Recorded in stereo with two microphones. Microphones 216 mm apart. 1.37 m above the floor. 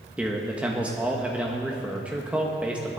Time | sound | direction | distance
0.2 | a man speaking | 5° right (ahead or behind) | 1.2 m